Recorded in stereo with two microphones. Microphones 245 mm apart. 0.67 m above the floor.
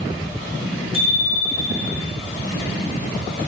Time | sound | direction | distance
0.9 | a bicycle bell | 35° left (ahead or behind) | 6 m